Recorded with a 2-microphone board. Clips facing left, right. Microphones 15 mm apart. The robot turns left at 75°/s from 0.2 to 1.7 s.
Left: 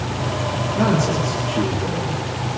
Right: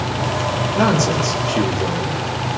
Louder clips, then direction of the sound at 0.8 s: Right 2 dB; 30° right.